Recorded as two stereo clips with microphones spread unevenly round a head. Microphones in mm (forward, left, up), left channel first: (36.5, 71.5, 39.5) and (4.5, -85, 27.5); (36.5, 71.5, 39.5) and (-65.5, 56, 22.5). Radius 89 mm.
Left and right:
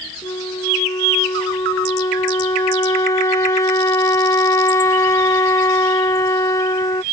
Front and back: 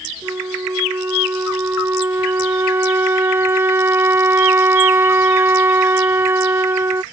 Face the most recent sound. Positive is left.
turn(degrees=125)